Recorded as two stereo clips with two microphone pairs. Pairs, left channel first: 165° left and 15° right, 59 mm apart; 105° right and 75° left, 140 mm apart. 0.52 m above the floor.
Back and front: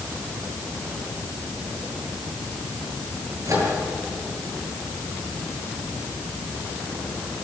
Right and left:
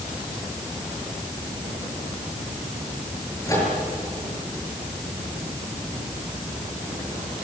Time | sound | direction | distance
3.5 | a microwave | 40° right | 8 m